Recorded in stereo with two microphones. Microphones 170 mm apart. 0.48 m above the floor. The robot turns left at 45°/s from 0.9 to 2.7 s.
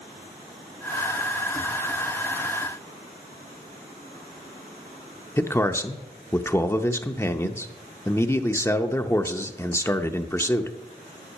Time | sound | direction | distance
5.4 | a man speaking | 15° left (ahead or behind) | 0.7 m